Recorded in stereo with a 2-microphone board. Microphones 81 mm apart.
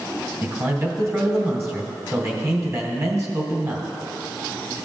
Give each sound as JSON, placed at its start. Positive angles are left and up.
{"t": 0.4, "sound": "a man speaking", "side_deg": -35, "distance_m": 1.8}